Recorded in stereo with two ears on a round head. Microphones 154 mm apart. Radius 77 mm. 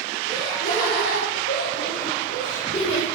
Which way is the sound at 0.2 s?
60° left (ahead or behind).